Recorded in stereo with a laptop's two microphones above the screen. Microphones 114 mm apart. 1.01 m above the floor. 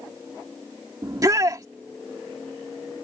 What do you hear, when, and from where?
1.0 s a shout: 35° right (ahead or behind)